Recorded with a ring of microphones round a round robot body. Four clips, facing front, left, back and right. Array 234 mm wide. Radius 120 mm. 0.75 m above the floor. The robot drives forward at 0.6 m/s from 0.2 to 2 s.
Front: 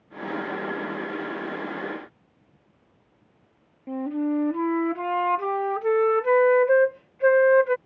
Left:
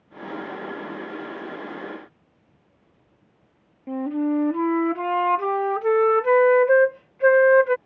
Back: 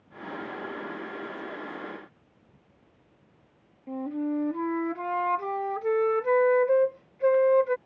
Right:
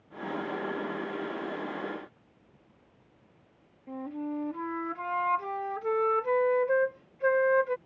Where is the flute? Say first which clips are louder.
Left 12 dB, front 4 dB; 70° left.